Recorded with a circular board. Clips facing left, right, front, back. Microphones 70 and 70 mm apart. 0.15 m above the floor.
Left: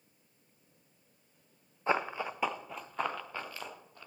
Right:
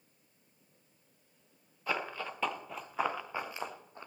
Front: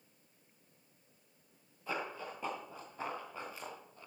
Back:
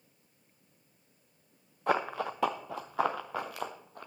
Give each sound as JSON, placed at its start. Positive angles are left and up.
{"t": 1.9, "sound": "running footsteps", "azimuth_deg": 150, "distance_m": 1.1}